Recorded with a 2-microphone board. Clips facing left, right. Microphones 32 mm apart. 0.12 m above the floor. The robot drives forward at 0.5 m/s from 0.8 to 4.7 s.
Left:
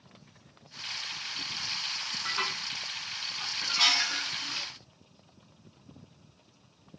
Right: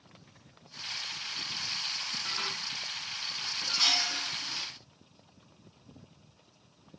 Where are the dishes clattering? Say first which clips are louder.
Left 6 dB; 20° left (ahead or behind), 7.5 m; by 4.7 s 25° left (ahead or behind), 6.5 m.